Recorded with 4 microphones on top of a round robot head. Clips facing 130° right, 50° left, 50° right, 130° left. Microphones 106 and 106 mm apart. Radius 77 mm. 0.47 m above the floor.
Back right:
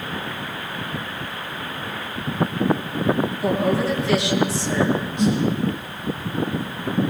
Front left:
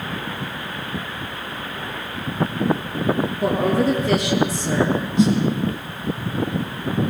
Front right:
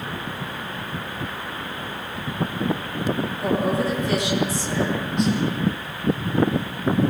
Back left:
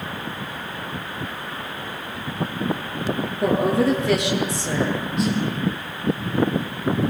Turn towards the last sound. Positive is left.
turn(degrees=45)